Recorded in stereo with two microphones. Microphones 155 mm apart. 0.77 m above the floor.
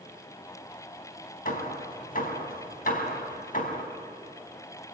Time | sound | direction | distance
1.4 | hammering | 65° left (ahead or behind) | 3 m